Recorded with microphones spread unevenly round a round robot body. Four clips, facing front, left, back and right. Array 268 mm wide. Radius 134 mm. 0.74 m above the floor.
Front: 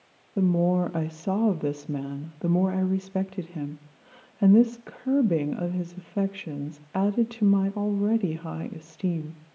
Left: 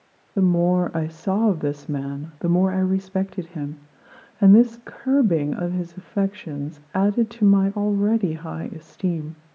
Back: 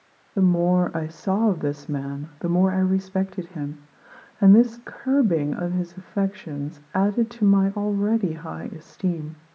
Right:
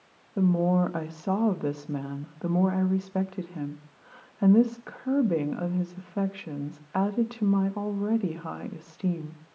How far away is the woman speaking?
About 0.8 m.